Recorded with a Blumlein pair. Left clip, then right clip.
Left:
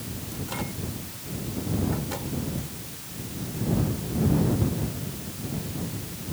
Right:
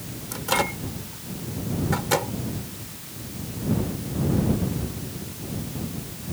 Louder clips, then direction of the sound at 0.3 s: Right 12 dB; 60° right.